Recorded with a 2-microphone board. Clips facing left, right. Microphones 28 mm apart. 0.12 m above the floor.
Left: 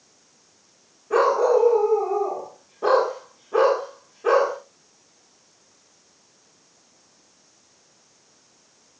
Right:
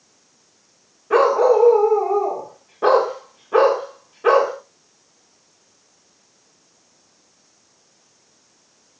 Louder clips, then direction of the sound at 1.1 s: Right 4 dB; 50° right (ahead or behind).